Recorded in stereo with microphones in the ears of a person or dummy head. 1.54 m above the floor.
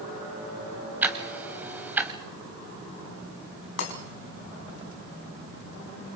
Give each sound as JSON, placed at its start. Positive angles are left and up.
{"t": 1.0, "sound": "ticking", "side_deg": -10, "distance_m": 2.5}
{"t": 3.8, "sound": "breaking glass", "side_deg": 75, "distance_m": 7.0}